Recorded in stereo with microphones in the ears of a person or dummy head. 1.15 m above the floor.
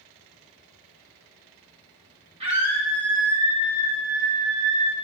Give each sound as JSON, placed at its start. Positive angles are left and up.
{"t": 2.4, "sound": "a scream", "side_deg": -35, "distance_m": 3.5}